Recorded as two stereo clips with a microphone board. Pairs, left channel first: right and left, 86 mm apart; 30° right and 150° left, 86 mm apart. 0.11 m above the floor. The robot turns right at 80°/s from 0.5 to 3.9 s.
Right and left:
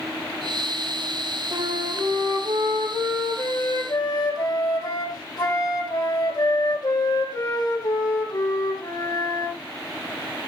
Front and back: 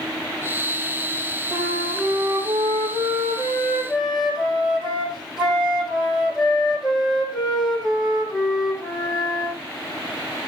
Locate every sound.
1.5 s a flute: 45° left, 4.5 m; by 9.6 s 125° right, 4.5 m